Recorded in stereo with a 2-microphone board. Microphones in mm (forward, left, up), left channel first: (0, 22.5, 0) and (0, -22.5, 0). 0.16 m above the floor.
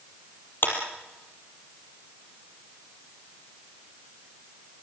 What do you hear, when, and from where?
0.6 s a clap: 55° left (ahead or behind), 4 m